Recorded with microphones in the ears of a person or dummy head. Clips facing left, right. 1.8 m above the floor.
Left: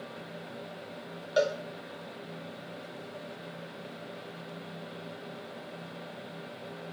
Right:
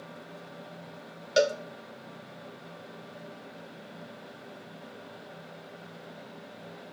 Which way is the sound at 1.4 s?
25° right (ahead or behind).